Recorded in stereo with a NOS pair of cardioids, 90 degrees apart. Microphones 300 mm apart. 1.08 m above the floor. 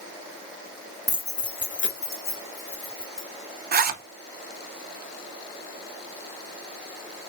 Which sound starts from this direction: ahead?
Keys jangling, at 1.1 s.